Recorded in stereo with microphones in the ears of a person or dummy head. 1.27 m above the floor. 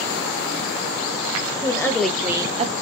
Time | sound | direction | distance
1.6 | a woman speaking | 25° left (ahead or behind) | 0.8 m